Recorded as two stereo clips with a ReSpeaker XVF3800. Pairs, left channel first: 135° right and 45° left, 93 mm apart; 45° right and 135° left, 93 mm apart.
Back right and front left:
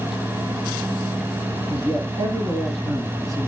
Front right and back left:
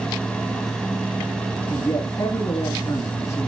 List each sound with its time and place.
1.7 s a man speaking: 5° left, 2 m